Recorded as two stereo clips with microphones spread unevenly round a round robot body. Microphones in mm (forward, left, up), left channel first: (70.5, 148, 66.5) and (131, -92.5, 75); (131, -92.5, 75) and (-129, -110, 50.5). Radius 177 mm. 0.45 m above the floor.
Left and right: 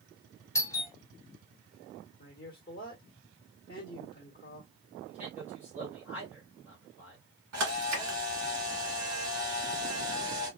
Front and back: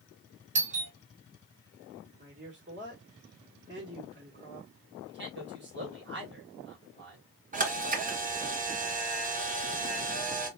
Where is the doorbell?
170° left, 1.3 m.